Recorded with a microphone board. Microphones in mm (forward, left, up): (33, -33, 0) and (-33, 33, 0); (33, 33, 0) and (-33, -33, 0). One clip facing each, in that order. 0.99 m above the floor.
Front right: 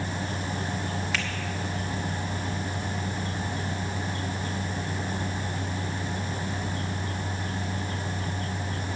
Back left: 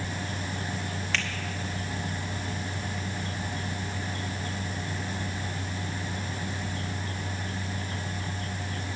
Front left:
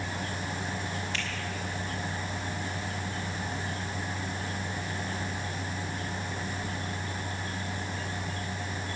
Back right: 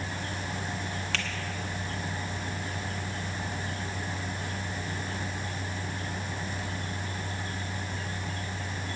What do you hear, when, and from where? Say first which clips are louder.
1.1 s a finger snap: back left 2 dB, back right 1 dB; 130° right, 1.9 m